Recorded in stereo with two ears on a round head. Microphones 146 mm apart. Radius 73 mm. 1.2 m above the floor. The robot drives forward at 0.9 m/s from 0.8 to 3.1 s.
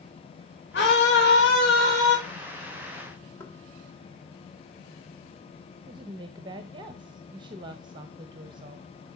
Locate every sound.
0.7 s a scream: 80° left, 6 m; by 2.2 s 70° left (ahead or behind), 6 m
3.4 s knocking: 15° left (ahead or behind), 1.9 m
5.9 s a woman speaking: 30° right (ahead or behind), 0.8 m